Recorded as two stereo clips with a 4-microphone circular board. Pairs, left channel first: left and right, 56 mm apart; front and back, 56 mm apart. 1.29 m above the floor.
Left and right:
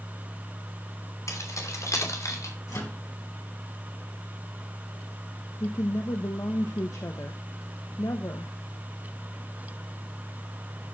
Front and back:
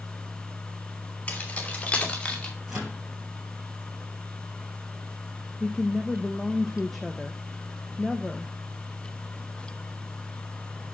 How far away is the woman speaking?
About 0.9 m.